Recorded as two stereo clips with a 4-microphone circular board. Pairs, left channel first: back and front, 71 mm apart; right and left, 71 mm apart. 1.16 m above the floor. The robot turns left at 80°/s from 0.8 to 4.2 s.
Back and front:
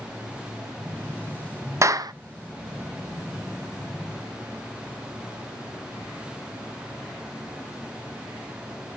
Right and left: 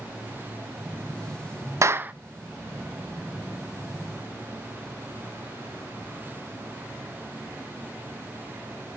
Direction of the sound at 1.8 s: 45° left.